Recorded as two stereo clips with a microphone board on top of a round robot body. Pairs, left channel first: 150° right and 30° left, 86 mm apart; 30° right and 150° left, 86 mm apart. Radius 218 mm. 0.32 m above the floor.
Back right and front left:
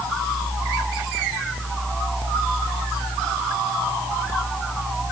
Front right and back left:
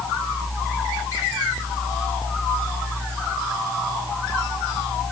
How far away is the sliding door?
No sliding door in this recording.